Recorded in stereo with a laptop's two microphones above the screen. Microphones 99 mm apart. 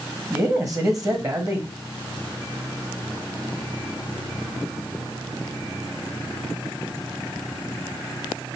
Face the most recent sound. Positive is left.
turn(degrees=-35)  # may be behind; listen again after turning